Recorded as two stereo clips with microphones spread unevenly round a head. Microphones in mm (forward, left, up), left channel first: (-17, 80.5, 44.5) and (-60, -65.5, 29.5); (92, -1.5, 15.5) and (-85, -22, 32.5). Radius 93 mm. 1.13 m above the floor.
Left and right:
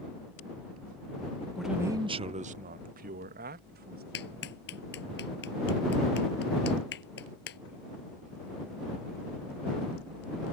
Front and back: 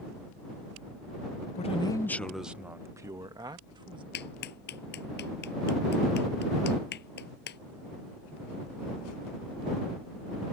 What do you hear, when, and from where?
1.6 s a man speaking: 15° right; by 4.0 s 110° right
4.1 s a clap: 45° left